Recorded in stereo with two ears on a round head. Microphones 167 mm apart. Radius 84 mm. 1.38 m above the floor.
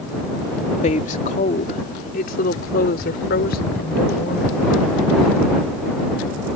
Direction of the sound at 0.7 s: 40° left (ahead or behind).